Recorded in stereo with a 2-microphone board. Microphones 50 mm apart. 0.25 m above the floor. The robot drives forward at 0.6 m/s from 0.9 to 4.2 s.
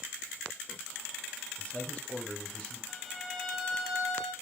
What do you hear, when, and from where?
1.6 s a man speaking: 25° left (ahead or behind), 1.0 m; by 2.8 s 20° left (ahead or behind), 1.2 m
2.9 s a violin: 5° left (ahead or behind), 0.6 m